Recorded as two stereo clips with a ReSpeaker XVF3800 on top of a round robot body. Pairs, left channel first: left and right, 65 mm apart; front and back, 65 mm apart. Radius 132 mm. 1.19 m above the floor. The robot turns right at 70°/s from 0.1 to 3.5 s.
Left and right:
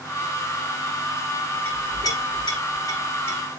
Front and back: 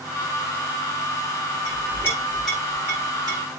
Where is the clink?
30° left, 6.5 m; by 3.4 s 155° left, 6.5 m.